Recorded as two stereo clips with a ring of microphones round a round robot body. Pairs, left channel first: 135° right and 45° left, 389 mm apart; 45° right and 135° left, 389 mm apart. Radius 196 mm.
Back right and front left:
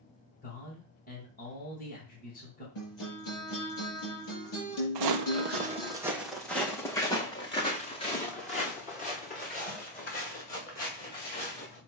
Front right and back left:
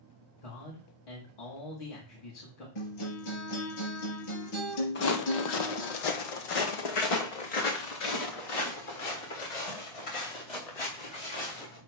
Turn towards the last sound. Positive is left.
turn(degrees=-65)